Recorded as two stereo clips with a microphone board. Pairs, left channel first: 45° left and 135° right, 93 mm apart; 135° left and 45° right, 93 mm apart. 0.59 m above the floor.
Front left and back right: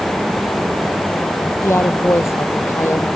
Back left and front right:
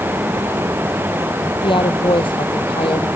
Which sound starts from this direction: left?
A woman speaking, at 1.6 s.